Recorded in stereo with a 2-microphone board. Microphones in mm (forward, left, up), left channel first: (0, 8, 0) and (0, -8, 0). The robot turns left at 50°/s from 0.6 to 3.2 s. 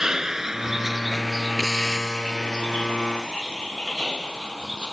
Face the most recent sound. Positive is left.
turn(degrees=60)  # may be behind; listen again after turning